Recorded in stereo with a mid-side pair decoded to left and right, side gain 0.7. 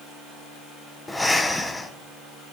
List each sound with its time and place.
1.1 s breathing: 10° left, 0.9 m